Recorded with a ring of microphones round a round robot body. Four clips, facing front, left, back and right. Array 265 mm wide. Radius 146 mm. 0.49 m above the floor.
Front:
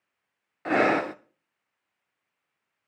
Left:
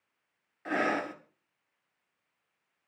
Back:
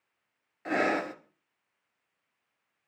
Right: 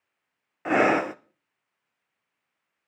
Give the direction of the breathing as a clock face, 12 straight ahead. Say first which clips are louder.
Right 9 dB, front 5 dB; 2 o'clock.